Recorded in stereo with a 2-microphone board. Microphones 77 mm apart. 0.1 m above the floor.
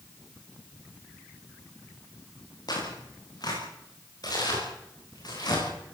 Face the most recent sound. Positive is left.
turn(degrees=60)  # may be behind; listen again after turning